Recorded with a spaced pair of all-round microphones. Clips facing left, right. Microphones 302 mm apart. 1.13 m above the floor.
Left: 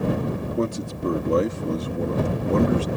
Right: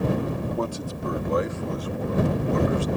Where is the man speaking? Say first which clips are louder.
Left 4 dB; 25° left (ahead or behind); by 2.9 s 70° left (ahead or behind).